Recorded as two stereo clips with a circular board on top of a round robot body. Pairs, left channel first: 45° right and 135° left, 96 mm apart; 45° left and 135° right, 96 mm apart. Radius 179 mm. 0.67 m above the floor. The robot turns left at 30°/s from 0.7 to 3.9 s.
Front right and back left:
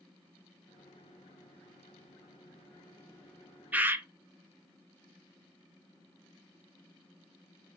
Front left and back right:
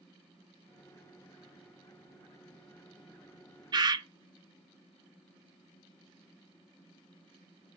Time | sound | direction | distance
3.7 | a bird | 155° right | 0.6 m